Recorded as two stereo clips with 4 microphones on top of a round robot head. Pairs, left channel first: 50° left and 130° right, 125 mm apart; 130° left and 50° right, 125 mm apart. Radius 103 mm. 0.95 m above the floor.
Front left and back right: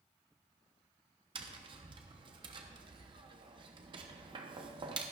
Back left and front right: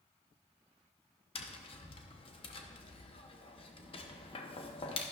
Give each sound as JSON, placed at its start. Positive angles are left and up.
{"t": 1.4, "sound": "tapping", "azimuth_deg": 180, "distance_m": 0.9}